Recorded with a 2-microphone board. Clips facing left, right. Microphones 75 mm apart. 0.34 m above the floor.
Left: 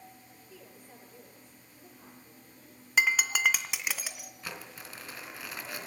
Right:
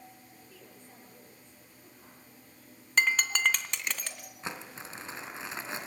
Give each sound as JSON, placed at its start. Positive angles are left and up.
{"t": 0.5, "sound": "a woman speaking", "side_deg": 10, "distance_m": 8.5}
{"t": 3.0, "sound": "breaking glass", "side_deg": 5, "distance_m": 1.9}
{"t": 4.4, "sound": "crumpling", "side_deg": -25, "distance_m": 3.0}